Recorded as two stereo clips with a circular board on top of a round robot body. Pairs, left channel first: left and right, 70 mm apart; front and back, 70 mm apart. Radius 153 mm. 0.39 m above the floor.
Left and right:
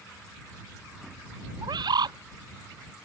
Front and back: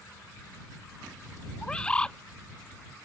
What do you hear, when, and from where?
1.6 s a bird: 75° right